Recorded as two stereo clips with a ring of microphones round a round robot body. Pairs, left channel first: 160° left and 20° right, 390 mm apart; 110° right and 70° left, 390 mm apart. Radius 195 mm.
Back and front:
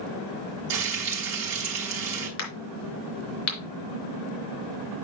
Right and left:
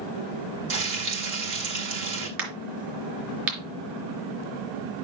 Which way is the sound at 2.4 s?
105° left.